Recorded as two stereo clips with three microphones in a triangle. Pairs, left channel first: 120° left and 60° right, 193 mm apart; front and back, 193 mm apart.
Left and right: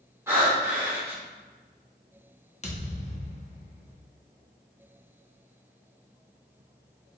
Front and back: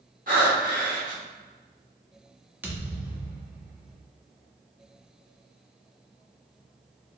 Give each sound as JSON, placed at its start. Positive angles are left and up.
{"t": 0.3, "sound": "breathing", "azimuth_deg": -135, "distance_m": 1.6}
{"t": 2.6, "sound": "a thud", "azimuth_deg": 105, "distance_m": 0.8}